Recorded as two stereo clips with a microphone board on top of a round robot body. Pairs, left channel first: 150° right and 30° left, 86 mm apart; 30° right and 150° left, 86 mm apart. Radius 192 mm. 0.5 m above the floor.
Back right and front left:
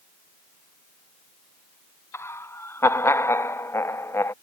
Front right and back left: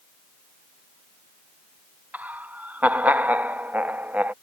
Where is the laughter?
160° right.